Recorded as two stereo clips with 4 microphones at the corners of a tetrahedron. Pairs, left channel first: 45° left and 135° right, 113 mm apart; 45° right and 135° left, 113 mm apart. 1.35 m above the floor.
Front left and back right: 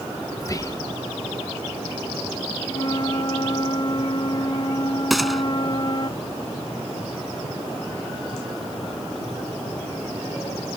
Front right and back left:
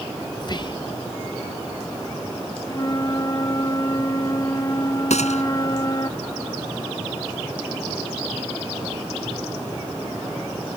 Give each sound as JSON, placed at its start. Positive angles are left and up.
{"t": 0.4, "sound": "whispering", "azimuth_deg": -10}
{"t": 2.7, "sound": "a flute", "azimuth_deg": 10}
{"t": 5.1, "sound": "a gunshot", "azimuth_deg": -45}